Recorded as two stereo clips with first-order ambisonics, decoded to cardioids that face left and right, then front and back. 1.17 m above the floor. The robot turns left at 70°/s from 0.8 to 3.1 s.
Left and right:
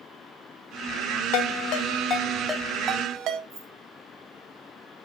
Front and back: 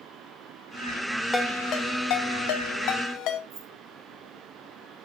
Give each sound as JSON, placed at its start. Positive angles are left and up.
{"t": 1.3, "sound": "a ringtone", "azimuth_deg": 80, "distance_m": 0.9}
{"t": 3.5, "sound": "keys jangling", "azimuth_deg": -140, "distance_m": 1.6}